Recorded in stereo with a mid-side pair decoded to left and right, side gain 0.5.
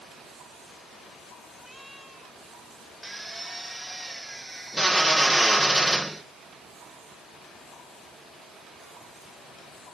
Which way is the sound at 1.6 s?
5° left.